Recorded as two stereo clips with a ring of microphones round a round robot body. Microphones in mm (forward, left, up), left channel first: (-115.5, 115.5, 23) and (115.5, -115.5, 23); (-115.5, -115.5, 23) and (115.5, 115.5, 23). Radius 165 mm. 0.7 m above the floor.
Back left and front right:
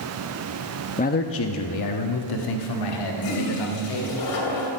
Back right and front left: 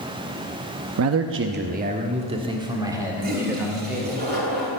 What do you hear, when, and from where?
1.0 s a man speaking: 70° left, 0.7 m; by 4.2 s 130° left, 2.5 m
3.2 s a toilet flushing: 105° left, 3 m